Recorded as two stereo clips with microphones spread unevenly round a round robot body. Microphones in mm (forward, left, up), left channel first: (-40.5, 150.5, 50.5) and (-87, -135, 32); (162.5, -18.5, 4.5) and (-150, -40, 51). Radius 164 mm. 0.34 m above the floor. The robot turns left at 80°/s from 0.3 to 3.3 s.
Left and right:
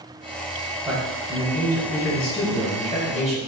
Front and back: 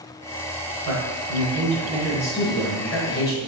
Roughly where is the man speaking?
Behind.